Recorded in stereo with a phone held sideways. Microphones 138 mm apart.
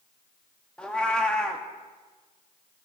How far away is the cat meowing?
About 0.8 m.